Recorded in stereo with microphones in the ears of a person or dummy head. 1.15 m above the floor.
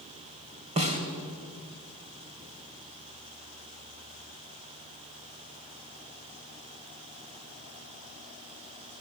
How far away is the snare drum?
About 3 m.